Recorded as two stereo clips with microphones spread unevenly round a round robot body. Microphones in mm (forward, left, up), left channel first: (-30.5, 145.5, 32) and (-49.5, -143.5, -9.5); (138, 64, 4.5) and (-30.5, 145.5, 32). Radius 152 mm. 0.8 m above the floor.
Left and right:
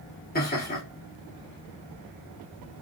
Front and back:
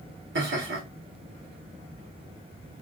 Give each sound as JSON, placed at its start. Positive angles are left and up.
{"t": 0.3, "sound": "laughter", "azimuth_deg": 145, "distance_m": 2.0}